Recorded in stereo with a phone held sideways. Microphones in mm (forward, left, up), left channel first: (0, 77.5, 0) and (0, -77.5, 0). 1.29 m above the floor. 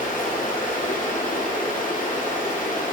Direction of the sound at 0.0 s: 55° left (ahead or behind).